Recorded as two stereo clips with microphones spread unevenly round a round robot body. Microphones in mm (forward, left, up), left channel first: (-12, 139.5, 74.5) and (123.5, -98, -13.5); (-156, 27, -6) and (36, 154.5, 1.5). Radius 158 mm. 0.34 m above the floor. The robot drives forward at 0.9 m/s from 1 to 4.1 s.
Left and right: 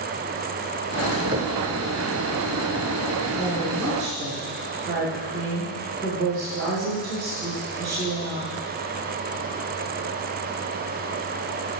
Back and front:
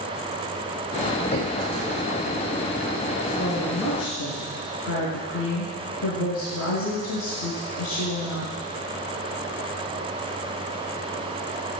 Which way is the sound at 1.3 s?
105° right.